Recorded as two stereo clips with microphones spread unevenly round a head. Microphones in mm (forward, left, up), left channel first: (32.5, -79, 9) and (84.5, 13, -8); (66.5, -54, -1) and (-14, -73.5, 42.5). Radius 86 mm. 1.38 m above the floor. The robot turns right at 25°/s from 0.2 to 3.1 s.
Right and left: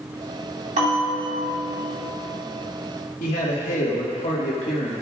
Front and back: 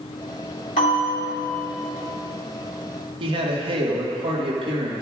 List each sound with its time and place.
0.8 s a bell: 50° left, 3 m; by 2.0 s 80° left, 3 m
3.2 s a man speaking: 160° right, 1.8 m